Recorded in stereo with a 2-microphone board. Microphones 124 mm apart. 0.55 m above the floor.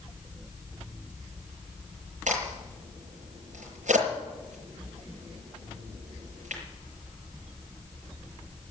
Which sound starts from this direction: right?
A crack, at 2.3 s.